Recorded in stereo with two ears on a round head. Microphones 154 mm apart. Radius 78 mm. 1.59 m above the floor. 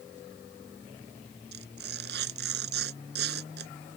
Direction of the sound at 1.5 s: 65° right (ahead or behind).